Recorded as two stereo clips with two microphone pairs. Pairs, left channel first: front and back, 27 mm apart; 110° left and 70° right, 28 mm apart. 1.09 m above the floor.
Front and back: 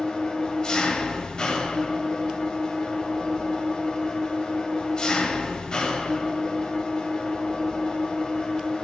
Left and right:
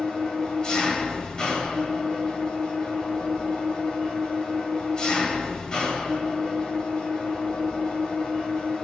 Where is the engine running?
50° left, 1.6 m.